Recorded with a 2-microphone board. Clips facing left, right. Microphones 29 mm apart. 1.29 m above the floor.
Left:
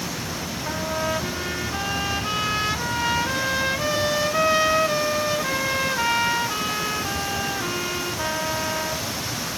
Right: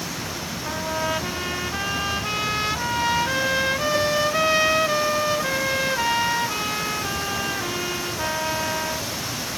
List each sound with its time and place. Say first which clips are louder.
0.7 s a trumpet: even; 5° right (ahead or behind), 0.8 m